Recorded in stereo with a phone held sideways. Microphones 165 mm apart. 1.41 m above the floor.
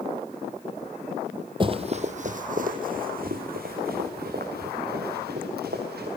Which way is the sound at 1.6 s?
30° right (ahead or behind).